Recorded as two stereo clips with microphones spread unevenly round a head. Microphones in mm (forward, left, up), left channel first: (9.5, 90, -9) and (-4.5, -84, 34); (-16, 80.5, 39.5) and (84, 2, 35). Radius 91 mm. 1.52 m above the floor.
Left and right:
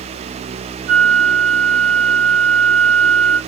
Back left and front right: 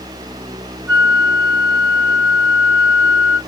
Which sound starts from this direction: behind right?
A flute, at 0.9 s.